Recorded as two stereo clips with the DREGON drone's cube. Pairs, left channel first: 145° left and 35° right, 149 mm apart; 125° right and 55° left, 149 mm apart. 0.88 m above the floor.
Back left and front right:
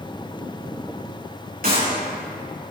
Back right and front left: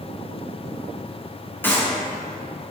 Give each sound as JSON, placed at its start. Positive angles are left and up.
{"t": 1.6, "sound": "a clap", "azimuth_deg": -50, "distance_m": 7.0}